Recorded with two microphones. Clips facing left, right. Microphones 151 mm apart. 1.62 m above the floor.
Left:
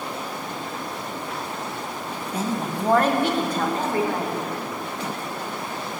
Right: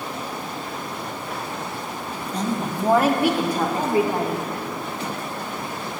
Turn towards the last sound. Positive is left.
turn(degrees=-15)  # may be behind; listen again after turning